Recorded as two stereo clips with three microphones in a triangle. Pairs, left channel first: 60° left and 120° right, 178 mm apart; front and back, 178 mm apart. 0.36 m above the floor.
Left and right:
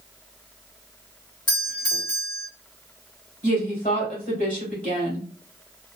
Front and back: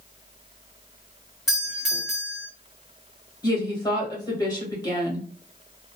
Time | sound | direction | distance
1.5 | a doorbell | 95° left | 1.6 m
3.4 | a woman speaking | 60° left | 2.0 m